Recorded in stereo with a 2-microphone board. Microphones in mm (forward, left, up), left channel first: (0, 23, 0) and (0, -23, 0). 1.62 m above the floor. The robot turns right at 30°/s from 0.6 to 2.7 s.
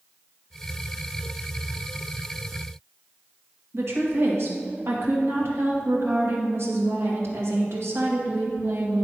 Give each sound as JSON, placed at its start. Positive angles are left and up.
{"t": 3.7, "sound": "a woman speaking", "side_deg": -65, "distance_m": 1.9}